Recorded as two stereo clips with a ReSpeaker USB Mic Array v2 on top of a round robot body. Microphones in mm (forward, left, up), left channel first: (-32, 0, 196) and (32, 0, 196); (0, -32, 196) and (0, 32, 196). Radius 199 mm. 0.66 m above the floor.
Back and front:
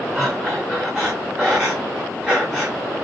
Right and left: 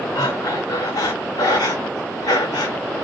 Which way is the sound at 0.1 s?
90° right.